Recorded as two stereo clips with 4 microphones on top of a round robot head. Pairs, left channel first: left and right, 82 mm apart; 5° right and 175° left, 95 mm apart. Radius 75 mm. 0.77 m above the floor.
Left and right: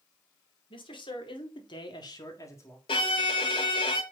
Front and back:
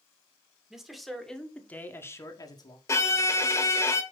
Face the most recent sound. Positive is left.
turn(degrees=55)